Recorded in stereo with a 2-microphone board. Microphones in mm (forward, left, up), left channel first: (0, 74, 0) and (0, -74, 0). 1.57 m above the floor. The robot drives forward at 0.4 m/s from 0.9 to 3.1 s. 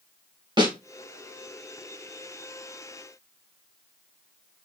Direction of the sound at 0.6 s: 30° right (ahead or behind).